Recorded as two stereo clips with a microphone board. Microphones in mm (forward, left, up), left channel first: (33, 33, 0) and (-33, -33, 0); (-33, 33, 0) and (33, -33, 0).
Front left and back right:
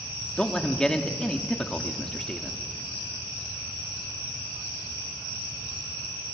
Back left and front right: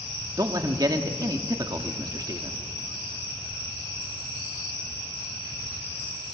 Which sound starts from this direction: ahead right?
A man speaking, at 0.4 s.